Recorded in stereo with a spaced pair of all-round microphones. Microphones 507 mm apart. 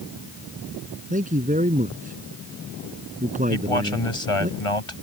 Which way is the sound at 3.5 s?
80° left.